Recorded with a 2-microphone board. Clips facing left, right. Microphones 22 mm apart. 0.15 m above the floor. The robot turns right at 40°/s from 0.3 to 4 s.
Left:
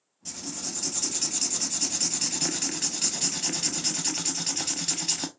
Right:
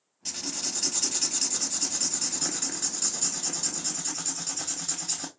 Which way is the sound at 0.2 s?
40° right.